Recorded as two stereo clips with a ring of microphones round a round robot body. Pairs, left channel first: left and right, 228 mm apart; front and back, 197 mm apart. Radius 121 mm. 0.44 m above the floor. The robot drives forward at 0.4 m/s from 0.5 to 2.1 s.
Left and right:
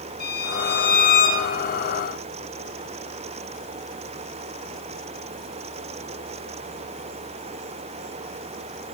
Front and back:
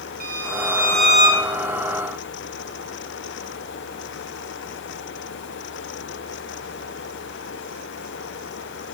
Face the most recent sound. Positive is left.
turn(degrees=145)